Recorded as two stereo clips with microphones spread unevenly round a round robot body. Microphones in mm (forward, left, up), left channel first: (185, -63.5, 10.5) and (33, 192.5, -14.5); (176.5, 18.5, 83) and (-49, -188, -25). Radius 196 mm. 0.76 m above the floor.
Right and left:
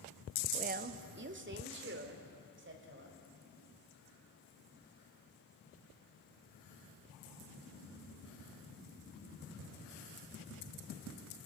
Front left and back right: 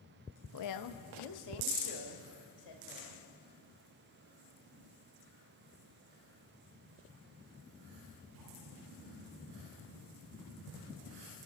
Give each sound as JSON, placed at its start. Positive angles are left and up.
{"t": 0.5, "sound": "a woman speaking", "azimuth_deg": 75, "distance_m": 0.7}